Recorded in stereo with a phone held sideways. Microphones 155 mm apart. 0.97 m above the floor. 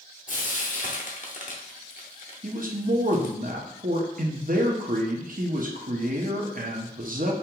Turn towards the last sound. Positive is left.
turn(degrees=-65)  # may be behind; listen again after turning